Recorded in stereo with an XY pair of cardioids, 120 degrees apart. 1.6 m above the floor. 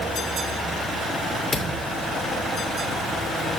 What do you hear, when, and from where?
1.5 s a thud: 30° left, 3 m